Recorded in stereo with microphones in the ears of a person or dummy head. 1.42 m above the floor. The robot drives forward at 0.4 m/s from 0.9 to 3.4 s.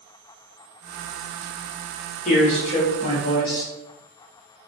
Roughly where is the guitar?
I don't hear a guitar.